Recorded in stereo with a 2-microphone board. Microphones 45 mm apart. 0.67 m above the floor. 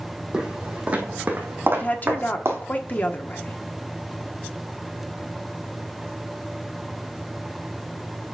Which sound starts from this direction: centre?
Footsteps, at 0.3 s.